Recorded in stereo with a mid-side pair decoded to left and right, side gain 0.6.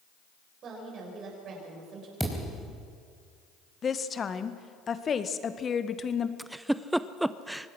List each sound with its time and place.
0.6 s a woman speaking: 50° right, 7.5 m
2.2 s a thud: 5° right, 4.5 m
3.8 s a woman speaking: 35° left, 1.6 m
6.4 s a giggle: 5° right, 0.7 m